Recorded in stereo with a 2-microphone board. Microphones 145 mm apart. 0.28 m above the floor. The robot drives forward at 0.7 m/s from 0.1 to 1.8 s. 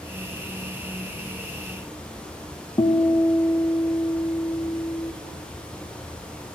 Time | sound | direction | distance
2.8 | a guitar | 30° left (ahead or behind) | 0.8 m